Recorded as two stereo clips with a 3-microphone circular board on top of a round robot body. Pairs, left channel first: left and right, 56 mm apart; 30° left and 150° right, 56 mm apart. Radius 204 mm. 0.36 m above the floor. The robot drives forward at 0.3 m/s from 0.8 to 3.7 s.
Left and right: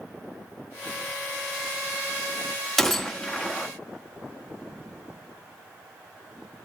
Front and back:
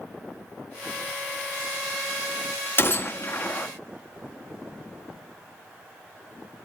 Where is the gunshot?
10° left, 1.3 m.